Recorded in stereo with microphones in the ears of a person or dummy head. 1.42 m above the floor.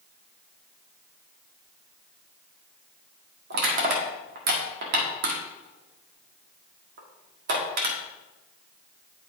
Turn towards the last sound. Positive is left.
turn(degrees=-60)  # may be behind; listen again after turning